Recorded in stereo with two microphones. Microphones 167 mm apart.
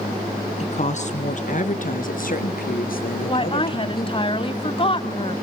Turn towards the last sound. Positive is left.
turn(degrees=35)  # may be behind; listen again after turning